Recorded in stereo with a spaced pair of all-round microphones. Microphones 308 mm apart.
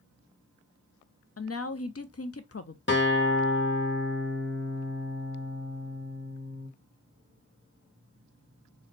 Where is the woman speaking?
50° left (ahead or behind), 0.5 m.